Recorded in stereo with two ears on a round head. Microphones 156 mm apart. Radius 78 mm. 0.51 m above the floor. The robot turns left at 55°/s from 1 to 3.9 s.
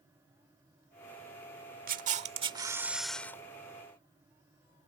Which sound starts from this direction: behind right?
A camera shutter, at 1.9 s.